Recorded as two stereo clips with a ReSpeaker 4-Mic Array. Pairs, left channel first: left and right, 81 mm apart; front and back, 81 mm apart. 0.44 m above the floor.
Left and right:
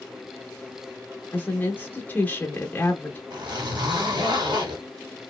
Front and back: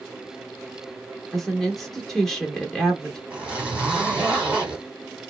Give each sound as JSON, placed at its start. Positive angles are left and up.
{"t": 1.3, "sound": "a woman speaking", "azimuth_deg": 80, "distance_m": 0.8}
{"t": 3.3, "sound": "a zipper", "azimuth_deg": -105, "distance_m": 1.6}